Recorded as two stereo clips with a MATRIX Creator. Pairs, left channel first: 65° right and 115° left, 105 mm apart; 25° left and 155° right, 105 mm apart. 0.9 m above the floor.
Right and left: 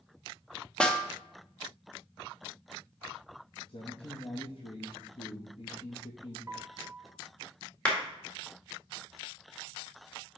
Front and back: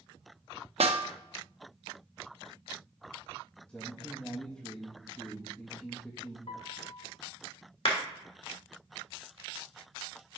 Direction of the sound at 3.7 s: 55° right.